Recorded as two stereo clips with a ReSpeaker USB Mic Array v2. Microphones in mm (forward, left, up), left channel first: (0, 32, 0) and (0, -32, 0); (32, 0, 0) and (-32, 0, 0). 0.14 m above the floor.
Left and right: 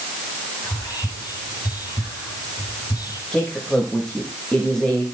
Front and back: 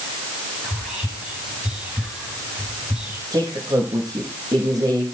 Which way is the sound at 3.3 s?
170° left.